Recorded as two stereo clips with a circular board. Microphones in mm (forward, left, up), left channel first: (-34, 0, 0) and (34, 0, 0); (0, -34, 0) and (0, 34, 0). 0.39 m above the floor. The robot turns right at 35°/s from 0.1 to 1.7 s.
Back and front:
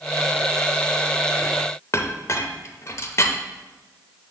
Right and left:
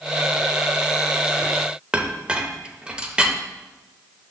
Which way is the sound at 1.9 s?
160° left.